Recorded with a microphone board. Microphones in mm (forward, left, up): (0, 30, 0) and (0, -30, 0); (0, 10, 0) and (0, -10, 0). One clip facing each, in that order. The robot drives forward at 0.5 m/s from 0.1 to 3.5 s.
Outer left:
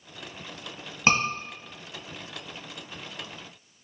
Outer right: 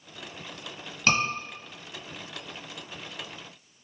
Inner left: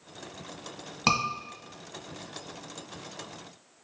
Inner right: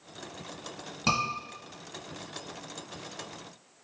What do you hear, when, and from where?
1.1 s a scream: 25° left (ahead or behind), 1.7 m